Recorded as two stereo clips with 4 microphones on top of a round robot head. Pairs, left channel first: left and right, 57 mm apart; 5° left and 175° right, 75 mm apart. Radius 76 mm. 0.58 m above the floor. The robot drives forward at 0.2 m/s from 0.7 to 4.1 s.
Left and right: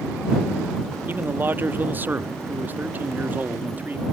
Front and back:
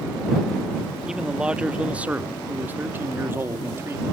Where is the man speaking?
100° right; by 4.0 s 135° right.